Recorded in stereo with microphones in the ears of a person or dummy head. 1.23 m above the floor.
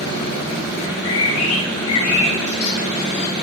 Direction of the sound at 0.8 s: 80° left.